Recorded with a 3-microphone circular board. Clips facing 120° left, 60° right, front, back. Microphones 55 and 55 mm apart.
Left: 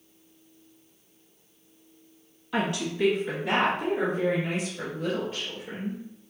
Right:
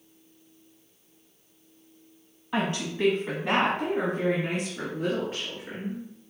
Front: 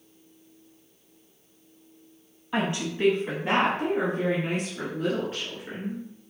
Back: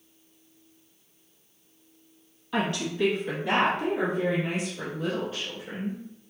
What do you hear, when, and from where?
2.5 s a woman speaking: 55° right, 1.1 m; by 6.0 s 35° right, 2.5 m